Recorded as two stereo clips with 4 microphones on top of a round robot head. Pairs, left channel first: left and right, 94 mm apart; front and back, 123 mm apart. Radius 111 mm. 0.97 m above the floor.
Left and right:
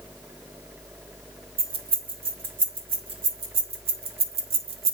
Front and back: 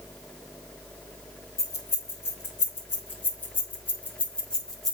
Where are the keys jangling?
70° right, 3.5 m; by 4.9 s 90° right, 1.1 m.